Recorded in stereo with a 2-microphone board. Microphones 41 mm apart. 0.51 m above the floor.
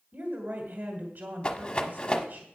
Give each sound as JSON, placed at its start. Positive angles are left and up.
{"t": 0.1, "sound": "a woman speaking", "side_deg": -55, "distance_m": 1.8}
{"t": 1.4, "sound": "a rattle", "side_deg": 20, "distance_m": 1.0}